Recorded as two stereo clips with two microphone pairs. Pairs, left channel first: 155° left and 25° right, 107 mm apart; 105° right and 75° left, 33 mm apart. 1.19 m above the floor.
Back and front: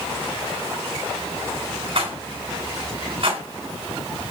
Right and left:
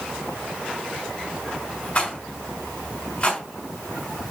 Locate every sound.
1.9 s a rattle: 60° right, 2.5 m